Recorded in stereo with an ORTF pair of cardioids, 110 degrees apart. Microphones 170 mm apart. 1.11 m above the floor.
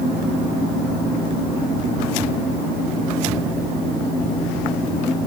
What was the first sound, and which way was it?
Only background noise.